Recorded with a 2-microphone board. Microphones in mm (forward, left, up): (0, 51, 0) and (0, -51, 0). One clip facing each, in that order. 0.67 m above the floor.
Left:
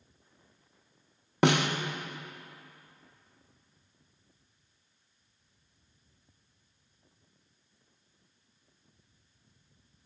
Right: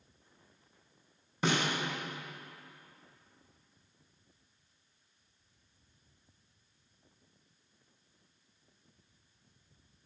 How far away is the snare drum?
About 0.6 m.